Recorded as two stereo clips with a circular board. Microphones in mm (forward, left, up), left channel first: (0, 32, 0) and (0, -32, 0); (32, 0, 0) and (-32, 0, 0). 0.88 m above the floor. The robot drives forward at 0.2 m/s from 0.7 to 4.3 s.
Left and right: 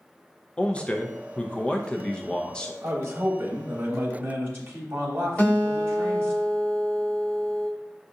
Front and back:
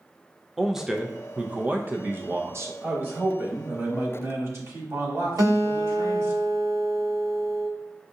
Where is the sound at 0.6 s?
95° left, 0.5 m; by 2.7 s 160° left, 0.7 m.